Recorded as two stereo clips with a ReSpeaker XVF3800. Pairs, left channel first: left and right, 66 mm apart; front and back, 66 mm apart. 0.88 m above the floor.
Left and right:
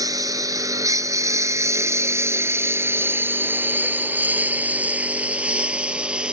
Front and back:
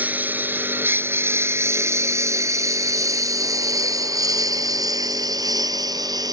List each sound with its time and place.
0.0 s a lawn mower: 115° right; by 6.3 s 165° right